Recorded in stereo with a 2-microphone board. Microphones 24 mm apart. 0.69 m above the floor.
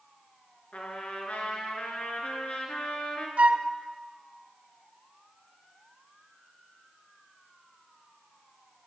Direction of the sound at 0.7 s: 85° left.